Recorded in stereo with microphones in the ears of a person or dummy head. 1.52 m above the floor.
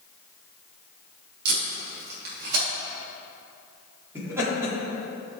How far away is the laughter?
About 3.5 m.